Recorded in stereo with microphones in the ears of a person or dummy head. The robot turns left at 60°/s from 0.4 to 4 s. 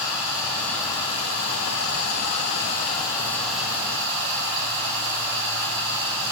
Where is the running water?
175° right, 4 m; by 6.3 s 30° right, 4 m.